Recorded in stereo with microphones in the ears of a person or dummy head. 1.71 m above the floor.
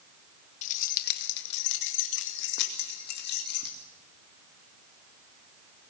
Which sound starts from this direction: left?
Keys jangling, at 0.6 s.